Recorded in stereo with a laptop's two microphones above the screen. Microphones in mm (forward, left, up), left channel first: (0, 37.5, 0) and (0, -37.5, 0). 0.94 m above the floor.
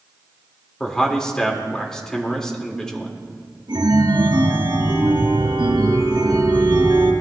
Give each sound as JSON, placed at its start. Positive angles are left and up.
{"t": 0.8, "sound": "a man speaking", "side_deg": 10, "distance_m": 3.5}
{"t": 3.7, "sound": "a chime", "side_deg": -85, "distance_m": 3.5}